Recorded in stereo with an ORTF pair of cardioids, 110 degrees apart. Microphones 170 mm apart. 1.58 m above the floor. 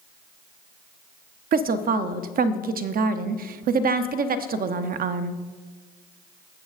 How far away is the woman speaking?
About 0.6 m.